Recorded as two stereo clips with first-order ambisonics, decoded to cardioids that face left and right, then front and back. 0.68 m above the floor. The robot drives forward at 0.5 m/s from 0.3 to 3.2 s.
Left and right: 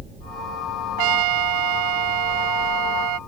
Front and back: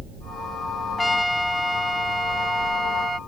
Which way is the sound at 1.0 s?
85° right.